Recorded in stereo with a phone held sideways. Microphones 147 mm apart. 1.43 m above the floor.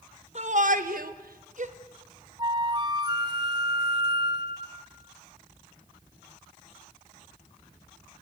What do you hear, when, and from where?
0.3 s a shout: 50° right (ahead or behind), 2 m
2.4 s a flute: 30° right (ahead or behind), 1.8 m